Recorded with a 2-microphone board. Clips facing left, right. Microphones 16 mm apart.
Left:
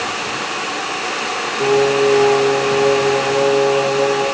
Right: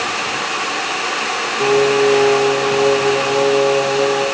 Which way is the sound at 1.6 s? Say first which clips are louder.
Even; 15° right (ahead or behind).